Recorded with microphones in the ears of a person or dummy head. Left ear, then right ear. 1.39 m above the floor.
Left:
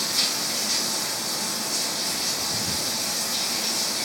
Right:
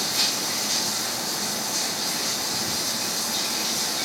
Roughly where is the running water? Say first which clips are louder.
Even; left.